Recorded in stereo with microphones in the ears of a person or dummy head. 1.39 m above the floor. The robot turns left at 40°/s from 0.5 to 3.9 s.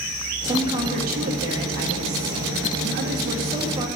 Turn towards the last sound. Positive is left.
turn(degrees=-160)